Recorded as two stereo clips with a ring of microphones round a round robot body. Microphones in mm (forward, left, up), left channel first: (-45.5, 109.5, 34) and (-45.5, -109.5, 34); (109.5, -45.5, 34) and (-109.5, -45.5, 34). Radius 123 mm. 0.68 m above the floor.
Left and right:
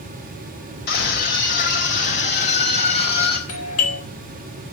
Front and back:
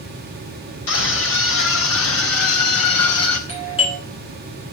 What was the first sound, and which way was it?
A scream, 40° left.